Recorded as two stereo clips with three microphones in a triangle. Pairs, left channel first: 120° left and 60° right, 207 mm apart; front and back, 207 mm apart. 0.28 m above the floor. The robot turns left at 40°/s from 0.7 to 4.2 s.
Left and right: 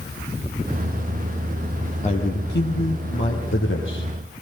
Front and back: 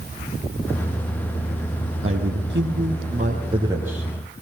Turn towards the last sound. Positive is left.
turn(degrees=90)